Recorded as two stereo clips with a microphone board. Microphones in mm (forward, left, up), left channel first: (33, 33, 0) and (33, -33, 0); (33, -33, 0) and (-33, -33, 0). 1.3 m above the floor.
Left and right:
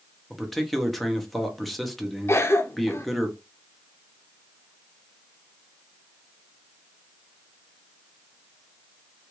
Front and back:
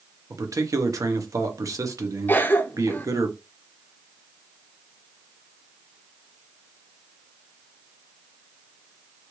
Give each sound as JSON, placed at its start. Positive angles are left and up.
{"t": 0.3, "sound": "a man speaking", "azimuth_deg": 175, "distance_m": 0.8}
{"t": 2.3, "sound": "a cough", "azimuth_deg": 50, "distance_m": 0.5}